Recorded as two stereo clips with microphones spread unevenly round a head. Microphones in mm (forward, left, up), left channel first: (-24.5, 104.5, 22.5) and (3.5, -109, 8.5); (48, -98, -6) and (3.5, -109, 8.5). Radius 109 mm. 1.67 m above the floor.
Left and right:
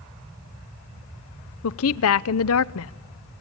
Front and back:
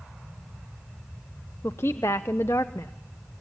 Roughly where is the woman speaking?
Left.